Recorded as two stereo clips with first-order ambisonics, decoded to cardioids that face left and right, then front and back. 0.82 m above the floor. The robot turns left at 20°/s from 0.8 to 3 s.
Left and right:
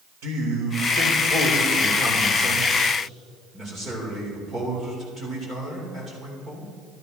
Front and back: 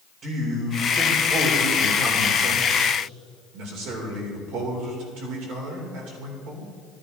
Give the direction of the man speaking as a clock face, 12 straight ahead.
4 o'clock.